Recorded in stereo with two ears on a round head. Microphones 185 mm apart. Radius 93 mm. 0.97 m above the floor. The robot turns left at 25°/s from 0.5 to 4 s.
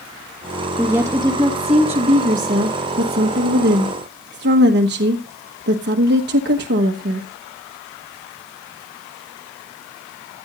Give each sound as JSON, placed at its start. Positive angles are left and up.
{"t": 0.8, "sound": "a woman speaking", "azimuth_deg": -10, "distance_m": 1.3}